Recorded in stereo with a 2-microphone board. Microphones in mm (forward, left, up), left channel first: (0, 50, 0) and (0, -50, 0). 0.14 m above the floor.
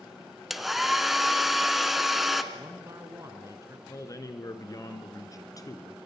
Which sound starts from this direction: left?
A man speaking, at 3.9 s.